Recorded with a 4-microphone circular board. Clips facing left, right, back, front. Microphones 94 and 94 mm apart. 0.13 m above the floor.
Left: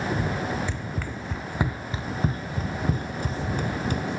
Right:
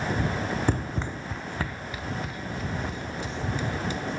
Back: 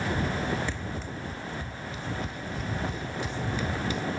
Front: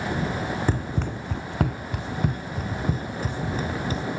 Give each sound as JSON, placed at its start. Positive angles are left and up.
{"t": 0.7, "sound": "running footsteps", "azimuth_deg": -50}